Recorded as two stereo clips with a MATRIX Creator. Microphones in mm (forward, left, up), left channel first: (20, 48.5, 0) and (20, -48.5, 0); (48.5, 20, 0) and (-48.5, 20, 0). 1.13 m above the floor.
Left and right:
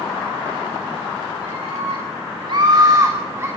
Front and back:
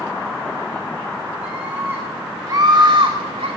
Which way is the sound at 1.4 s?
100° right.